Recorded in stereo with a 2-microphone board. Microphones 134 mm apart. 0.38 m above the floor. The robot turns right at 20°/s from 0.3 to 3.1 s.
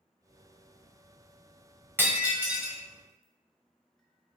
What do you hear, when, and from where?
2.0 s breaking glass: 15° right (ahead or behind), 1.2 m; by 4.4 s 5° left (ahead or behind), 1.2 m